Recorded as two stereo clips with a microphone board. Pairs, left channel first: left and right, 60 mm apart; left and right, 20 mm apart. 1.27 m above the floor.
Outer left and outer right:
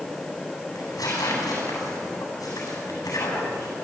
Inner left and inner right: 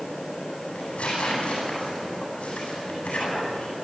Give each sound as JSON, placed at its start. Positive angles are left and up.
{"t": 0.8, "sound": "tearing paper", "side_deg": 80, "distance_m": 9.0}